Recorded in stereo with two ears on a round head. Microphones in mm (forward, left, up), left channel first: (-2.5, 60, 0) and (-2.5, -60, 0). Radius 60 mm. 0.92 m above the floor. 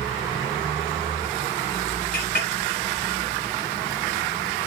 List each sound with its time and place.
2.1 s a clink: 70° left (ahead or behind), 1.1 m